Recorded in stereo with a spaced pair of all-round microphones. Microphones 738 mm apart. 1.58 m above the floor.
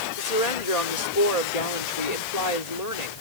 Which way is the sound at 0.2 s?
60° left (ahead or behind).